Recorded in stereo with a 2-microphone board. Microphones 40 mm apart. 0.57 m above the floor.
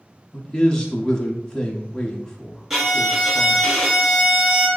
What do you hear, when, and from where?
0.3 s a man speaking: 15° left (ahead or behind), 0.9 m
2.7 s a violin: 10° right (ahead or behind), 1.8 m